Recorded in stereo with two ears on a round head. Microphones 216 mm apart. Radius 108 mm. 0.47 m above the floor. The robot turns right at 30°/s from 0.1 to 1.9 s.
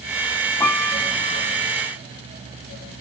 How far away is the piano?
About 2.5 m.